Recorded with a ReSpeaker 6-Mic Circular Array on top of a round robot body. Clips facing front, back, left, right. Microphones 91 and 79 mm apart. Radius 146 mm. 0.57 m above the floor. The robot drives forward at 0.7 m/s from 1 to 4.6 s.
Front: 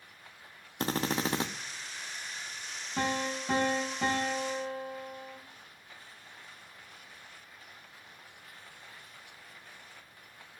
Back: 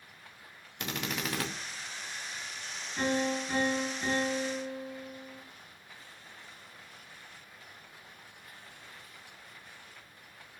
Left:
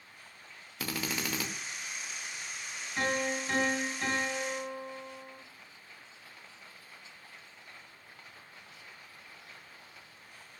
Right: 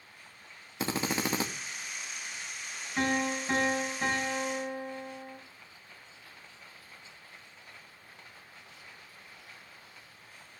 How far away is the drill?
About 1.6 m.